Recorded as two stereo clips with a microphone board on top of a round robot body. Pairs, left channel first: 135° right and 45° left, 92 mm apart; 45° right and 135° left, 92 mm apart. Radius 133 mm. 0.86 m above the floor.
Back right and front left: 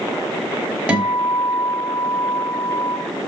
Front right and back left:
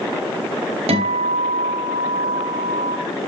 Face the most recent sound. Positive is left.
turn(degrees=125)